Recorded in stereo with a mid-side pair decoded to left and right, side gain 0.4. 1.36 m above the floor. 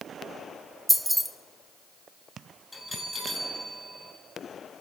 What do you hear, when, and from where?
0.9 s keys jangling: straight ahead, 0.6 m
2.7 s a bell: 15° left, 3 m